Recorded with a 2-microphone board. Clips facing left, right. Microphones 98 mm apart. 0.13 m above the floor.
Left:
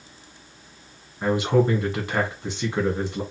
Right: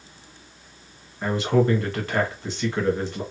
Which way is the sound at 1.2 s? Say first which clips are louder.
Left 1 dB; 15° left (ahead or behind).